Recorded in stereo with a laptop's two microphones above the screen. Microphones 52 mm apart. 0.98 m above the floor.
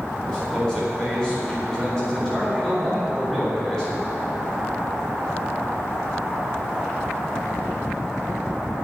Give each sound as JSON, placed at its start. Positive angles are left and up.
{"t": 0.3, "sound": "a man speaking", "side_deg": 10, "distance_m": 4.0}